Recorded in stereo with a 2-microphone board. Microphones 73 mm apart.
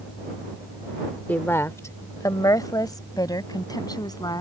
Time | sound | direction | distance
1.3 | a woman speaking | 25° left (ahead or behind) | ?